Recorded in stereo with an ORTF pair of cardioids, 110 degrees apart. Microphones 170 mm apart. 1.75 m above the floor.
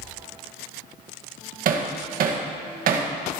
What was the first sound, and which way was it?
Hammering, 60° right.